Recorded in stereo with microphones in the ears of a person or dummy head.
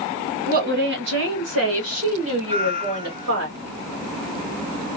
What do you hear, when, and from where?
0.5 s a woman speaking: 40° right (ahead or behind), 0.8 m; by 3.5 s 60° right (ahead or behind), 1.8 m
2.5 s a cat meowing: 20° right (ahead or behind), 1.2 m